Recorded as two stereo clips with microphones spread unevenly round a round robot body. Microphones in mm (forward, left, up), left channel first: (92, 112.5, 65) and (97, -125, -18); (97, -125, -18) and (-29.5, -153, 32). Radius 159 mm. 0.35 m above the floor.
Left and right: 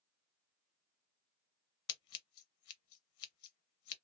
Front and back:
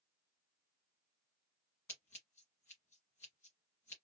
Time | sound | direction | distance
1.9 | scissors | 85° left | 0.7 m